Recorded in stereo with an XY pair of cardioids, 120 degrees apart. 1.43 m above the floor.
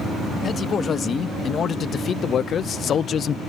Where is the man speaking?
40° left; by 3.4 s 50° left.